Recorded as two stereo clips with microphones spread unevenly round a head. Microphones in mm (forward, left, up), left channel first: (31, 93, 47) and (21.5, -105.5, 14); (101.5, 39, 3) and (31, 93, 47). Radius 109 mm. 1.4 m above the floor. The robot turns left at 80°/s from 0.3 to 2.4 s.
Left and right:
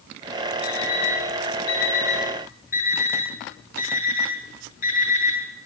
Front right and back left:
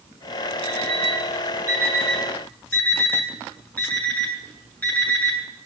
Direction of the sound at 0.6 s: Straight behind.